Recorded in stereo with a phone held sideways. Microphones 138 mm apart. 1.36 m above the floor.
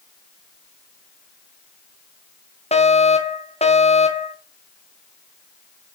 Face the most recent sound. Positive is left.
turn(degrees=50)  # may be behind; listen again after turning